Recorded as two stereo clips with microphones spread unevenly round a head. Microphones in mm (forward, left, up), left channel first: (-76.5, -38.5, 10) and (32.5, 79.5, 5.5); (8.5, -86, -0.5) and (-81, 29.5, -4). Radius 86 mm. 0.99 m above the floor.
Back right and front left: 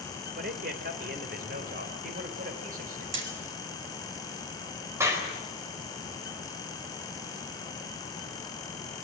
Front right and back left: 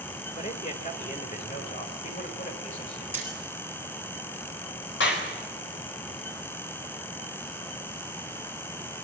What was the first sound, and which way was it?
A man speaking, 5° left.